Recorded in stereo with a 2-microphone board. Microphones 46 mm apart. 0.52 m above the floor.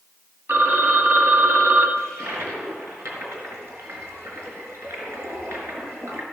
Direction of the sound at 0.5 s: 70° right (ahead or behind).